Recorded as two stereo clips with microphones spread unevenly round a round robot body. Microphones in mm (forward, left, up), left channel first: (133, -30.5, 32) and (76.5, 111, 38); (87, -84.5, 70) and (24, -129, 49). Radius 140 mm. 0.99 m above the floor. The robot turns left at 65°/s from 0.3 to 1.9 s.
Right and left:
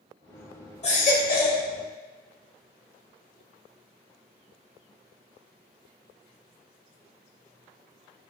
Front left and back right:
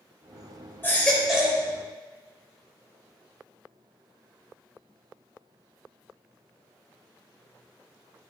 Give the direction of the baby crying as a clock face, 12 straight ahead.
1 o'clock.